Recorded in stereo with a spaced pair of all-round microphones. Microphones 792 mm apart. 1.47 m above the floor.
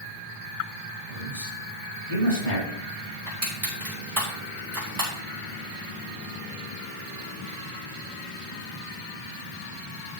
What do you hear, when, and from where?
1.1 s a man speaking: 60° left (ahead or behind), 6 m
3.3 s crushing: 55° right (ahead or behind), 4.5 m